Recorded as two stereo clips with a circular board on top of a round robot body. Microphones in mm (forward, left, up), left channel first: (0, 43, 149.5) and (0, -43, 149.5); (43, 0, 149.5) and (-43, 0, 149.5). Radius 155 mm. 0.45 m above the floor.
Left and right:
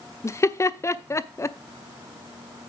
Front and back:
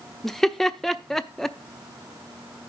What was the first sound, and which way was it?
Laughter, 85° left.